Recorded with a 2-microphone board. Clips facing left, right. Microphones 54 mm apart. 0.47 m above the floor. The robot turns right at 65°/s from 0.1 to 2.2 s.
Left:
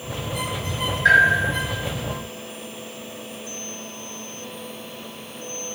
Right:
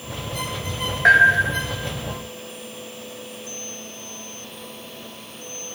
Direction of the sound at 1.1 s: 80° right.